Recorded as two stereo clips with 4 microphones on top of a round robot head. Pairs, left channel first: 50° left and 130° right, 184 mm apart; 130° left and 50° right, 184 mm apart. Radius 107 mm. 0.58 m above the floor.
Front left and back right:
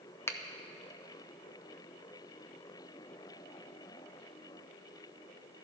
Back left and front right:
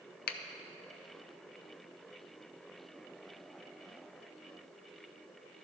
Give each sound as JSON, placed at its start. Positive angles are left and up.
{"t": 0.3, "sound": "a finger snap", "azimuth_deg": 125, "distance_m": 0.7}